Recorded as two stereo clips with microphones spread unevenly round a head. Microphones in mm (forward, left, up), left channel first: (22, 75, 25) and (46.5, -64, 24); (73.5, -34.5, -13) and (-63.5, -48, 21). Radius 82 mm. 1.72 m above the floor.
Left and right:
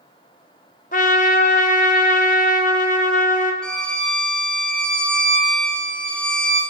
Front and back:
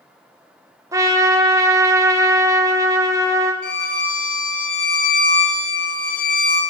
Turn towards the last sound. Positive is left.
turn(degrees=20)